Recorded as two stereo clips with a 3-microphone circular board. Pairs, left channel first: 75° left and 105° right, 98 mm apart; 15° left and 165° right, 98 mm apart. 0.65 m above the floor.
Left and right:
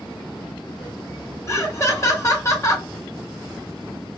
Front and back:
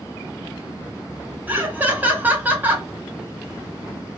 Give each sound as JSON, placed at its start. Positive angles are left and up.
{"t": 1.5, "sound": "laughter", "azimuth_deg": 125, "distance_m": 0.9}